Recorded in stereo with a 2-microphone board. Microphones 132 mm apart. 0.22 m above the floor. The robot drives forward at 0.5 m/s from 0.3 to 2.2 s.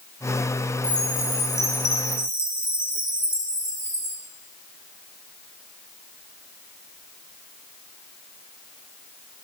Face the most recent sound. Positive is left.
turn(degrees=-30)  # may be behind; listen again after turning